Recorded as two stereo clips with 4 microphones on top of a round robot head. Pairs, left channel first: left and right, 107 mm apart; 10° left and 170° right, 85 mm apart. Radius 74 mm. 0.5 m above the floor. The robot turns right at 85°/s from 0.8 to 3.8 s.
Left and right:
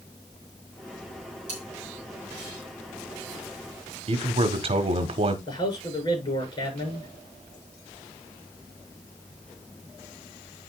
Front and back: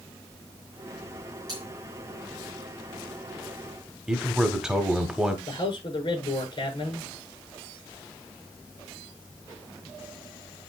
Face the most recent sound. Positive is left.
turn(degrees=45)